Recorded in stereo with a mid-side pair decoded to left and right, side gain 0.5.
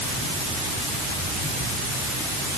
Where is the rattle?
No rattle in this recording.